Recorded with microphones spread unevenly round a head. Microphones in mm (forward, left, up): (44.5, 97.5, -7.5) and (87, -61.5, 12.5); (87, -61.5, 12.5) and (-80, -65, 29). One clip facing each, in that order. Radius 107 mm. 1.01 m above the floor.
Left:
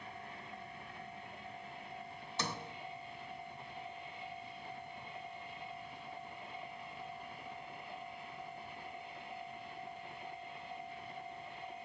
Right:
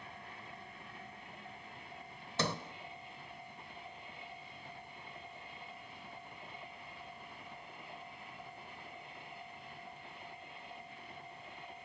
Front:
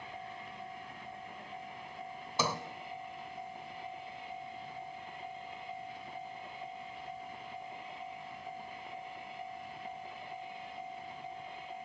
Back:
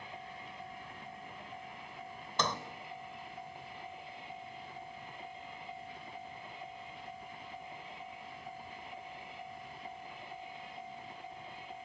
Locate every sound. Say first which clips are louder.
2.4 s a sliding door: right 5 dB, front 1 dB; 85° right, 1.2 m